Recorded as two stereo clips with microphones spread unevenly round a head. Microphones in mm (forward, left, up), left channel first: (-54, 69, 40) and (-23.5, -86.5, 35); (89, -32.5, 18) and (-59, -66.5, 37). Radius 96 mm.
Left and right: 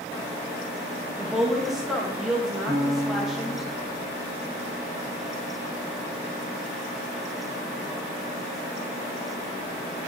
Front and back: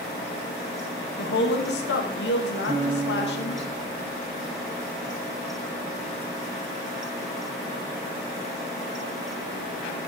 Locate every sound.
1.2 s a woman speaking: 10° left, 1.7 m
2.7 s a piano: 135° left, 6 m